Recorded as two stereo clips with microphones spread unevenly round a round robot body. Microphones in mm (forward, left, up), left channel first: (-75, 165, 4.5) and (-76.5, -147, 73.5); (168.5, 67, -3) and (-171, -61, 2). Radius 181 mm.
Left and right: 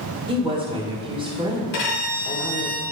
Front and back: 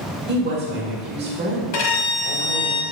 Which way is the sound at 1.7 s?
40° left.